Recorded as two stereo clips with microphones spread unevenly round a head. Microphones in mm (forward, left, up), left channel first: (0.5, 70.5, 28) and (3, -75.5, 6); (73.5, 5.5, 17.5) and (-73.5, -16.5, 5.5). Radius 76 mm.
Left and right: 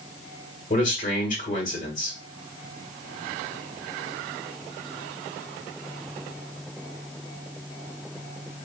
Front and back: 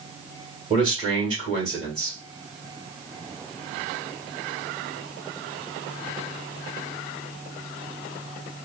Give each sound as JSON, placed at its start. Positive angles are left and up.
{"t": 0.7, "sound": "a man speaking", "azimuth_deg": 135, "distance_m": 1.9}